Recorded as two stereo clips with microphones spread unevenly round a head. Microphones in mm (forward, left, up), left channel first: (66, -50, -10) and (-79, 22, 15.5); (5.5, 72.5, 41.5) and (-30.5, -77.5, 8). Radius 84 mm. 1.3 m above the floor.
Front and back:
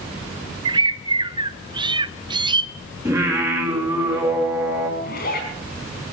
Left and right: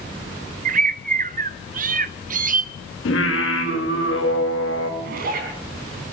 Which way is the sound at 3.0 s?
80° left.